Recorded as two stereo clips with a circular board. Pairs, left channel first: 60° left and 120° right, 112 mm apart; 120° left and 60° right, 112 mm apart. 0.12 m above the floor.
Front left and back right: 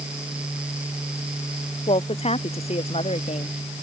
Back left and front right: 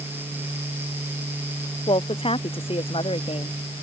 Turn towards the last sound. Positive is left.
turn(degrees=85)